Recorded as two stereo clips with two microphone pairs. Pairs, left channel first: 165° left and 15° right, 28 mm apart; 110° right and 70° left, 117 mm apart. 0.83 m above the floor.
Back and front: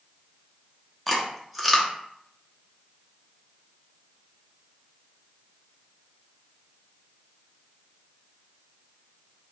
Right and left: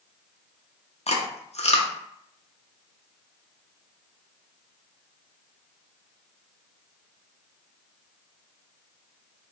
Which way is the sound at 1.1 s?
105° right.